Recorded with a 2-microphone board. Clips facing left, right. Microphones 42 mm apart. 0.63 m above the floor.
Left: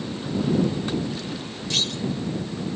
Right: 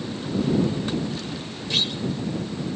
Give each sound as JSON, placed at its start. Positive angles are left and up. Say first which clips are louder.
{"t": 1.7, "sound": "a clunk", "louder": "right 1 dB", "side_deg": -15}